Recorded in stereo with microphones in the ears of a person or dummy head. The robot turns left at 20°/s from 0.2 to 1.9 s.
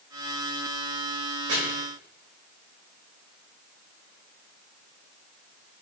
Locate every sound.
1.5 s chopping: 65° right (ahead or behind), 3.5 m